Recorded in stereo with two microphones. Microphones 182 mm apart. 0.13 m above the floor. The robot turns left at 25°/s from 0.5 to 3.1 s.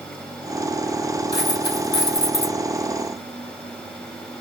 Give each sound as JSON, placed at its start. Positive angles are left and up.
{"t": 1.3, "sound": "a dropped coin", "azimuth_deg": 110, "distance_m": 1.9}